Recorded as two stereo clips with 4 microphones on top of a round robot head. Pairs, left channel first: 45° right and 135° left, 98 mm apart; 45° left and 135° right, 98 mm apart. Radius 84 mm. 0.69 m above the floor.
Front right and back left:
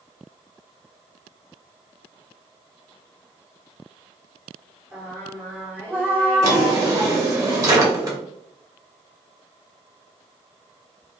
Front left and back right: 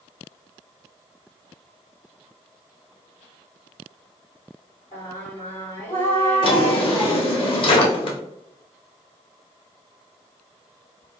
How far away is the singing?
About 2.0 m.